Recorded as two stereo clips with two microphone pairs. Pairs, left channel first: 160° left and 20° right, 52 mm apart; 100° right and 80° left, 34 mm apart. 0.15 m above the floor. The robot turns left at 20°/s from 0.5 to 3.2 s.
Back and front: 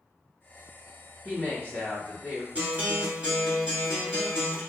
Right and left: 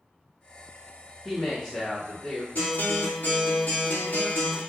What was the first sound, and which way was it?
A woman speaking, 15° right.